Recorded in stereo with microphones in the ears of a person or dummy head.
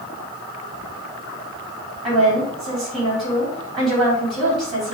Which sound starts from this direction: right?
A woman speaking, at 2.0 s.